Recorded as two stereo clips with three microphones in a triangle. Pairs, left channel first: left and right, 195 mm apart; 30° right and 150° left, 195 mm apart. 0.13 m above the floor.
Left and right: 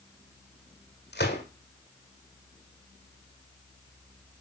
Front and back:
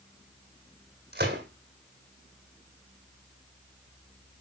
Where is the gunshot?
115° left, 2.5 m.